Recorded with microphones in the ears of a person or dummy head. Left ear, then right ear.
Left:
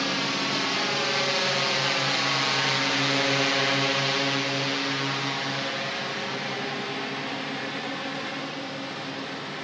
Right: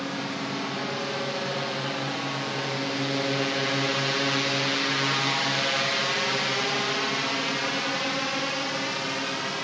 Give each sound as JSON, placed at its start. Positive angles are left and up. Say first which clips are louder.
{"t": 0.0, "sound": "a drone", "louder": "left 5 dB", "side_deg": 70}